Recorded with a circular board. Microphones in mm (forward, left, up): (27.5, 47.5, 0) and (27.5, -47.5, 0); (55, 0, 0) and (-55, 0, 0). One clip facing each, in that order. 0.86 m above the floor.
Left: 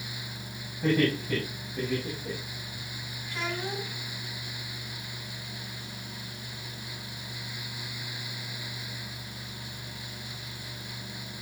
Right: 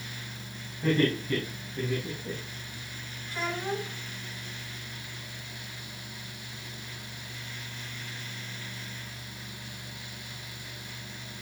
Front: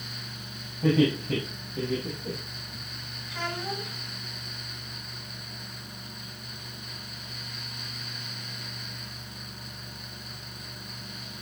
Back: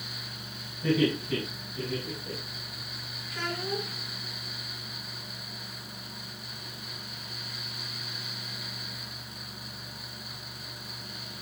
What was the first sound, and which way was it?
Laughter, 10° left.